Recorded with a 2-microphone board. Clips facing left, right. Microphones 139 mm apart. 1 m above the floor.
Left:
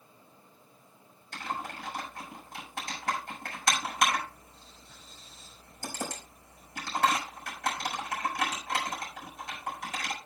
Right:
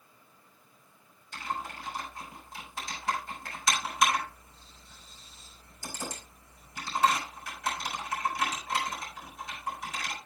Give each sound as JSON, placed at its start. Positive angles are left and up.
{"t": 1.3, "sound": "typing on a keyboard", "side_deg": 60, "distance_m": 7.0}